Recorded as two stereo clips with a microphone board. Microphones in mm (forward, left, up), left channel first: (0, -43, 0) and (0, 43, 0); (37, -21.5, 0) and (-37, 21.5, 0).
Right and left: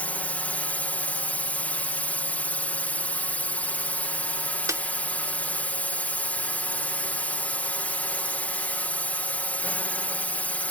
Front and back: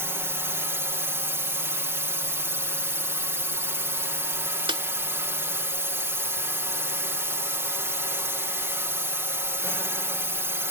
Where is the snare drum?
140° left.